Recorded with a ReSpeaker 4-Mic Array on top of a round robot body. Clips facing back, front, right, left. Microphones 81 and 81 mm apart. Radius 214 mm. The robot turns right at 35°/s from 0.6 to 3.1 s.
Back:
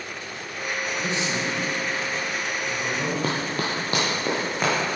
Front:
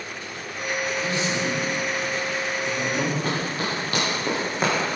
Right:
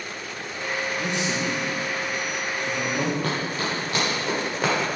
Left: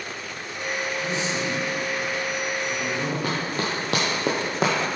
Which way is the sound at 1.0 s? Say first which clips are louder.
Front 1 dB, even; 120° right.